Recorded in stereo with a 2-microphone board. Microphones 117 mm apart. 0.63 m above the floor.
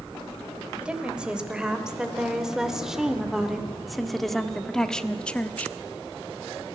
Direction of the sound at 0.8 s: 10° right (ahead or behind).